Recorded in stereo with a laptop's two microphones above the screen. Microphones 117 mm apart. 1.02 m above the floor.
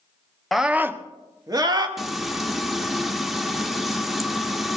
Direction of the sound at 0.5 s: Centre (ahead or behind).